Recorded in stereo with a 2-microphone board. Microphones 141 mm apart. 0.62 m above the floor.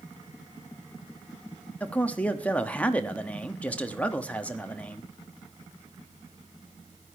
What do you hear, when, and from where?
1.8 s a man speaking: 10° left (ahead or behind), 1.0 m